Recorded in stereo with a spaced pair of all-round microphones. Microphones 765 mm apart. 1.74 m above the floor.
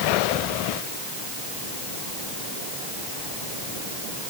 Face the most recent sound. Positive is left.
No sound to turn to.